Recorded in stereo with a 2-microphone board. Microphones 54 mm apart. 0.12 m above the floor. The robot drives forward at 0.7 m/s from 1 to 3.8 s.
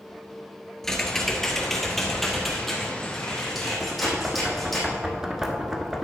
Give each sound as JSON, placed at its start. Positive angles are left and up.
{"t": 0.8, "sound": "typing on a keyboard", "side_deg": 10, "distance_m": 1.1}
{"t": 3.8, "sound": "knocking", "side_deg": -10, "distance_m": 1.1}